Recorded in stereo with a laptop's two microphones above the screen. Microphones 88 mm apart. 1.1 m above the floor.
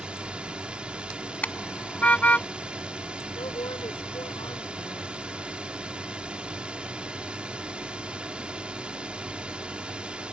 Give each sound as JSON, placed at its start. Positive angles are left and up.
{"t": 0.0, "sound": "a drone", "side_deg": -10}
{"t": 1.4, "sound": "a car horn", "side_deg": 20}
{"t": 3.4, "sound": "a woman speaking", "side_deg": 80}